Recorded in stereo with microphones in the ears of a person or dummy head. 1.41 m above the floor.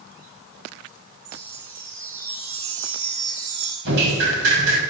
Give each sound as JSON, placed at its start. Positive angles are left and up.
{"t": 1.2, "sound": "a chime", "side_deg": -85, "distance_m": 8.5}
{"t": 3.9, "sound": "dripping", "side_deg": -70, "distance_m": 9.0}